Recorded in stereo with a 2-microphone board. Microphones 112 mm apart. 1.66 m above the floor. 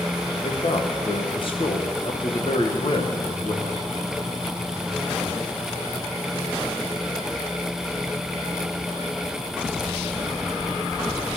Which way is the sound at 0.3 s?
50° left (ahead or behind).